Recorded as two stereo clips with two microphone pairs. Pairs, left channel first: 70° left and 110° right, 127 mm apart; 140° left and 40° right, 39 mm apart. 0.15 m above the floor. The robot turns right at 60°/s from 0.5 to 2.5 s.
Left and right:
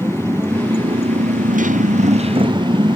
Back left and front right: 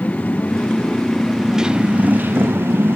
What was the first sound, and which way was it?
A motorcycle, 175° right.